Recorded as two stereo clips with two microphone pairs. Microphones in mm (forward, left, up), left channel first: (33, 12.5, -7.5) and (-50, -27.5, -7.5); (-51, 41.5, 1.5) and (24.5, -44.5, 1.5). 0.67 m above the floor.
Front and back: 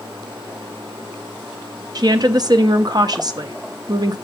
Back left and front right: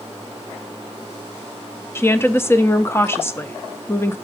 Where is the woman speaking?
170° right, 0.7 m.